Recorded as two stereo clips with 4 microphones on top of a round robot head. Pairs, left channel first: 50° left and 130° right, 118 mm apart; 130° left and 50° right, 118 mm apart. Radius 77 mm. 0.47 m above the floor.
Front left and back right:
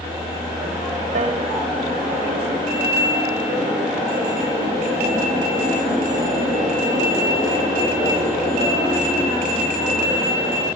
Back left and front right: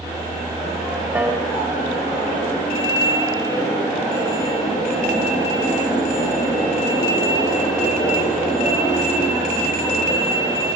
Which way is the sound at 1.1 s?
130° right.